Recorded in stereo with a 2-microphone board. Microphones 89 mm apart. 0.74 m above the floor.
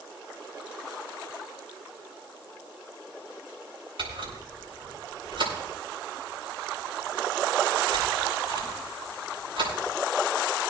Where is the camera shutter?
80° right, 7 m.